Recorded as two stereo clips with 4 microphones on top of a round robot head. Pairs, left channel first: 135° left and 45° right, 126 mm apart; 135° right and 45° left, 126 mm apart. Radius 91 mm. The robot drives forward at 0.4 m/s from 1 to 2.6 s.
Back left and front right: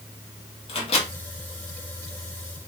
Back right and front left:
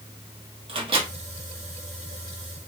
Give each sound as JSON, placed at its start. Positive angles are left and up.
{"t": 0.7, "sound": "a microwave", "azimuth_deg": 90, "distance_m": 1.2}